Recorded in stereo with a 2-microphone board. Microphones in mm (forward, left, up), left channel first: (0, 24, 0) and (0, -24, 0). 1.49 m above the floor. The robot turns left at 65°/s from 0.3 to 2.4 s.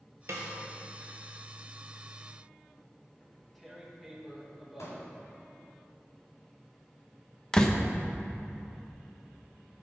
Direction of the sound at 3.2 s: 5° left (ahead or behind).